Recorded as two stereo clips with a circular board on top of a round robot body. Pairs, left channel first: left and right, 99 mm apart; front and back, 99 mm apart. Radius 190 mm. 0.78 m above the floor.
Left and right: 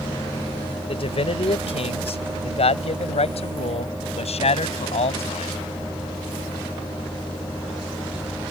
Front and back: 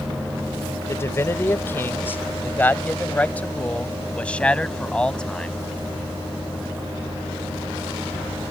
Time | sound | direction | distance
0.9 | a man speaking | 65° left | ?